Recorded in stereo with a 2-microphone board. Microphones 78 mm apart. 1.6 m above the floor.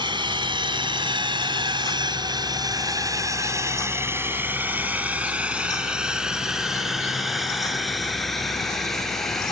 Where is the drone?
80° right; by 9.5 s 5° left (ahead or behind).